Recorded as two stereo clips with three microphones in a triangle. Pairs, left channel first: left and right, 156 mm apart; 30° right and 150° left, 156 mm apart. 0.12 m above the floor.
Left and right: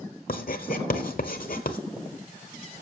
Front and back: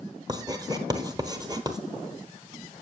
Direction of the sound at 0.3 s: 90° left.